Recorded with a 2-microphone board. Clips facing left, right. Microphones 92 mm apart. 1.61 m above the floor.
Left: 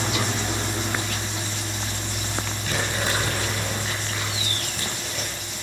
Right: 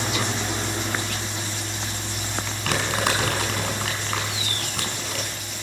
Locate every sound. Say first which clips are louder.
2.6 s crumpling: right 3 dB; 70° right (ahead or behind), 6 m